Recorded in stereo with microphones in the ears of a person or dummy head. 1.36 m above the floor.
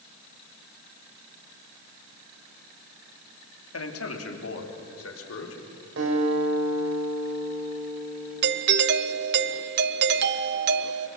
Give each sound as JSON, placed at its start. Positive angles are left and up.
{"t": 3.7, "sound": "a man speaking", "side_deg": 85, "distance_m": 3.5}
{"t": 6.0, "sound": "a guitar", "side_deg": -80, "distance_m": 7.5}
{"t": 8.4, "sound": "a doorbell", "side_deg": -55, "distance_m": 1.0}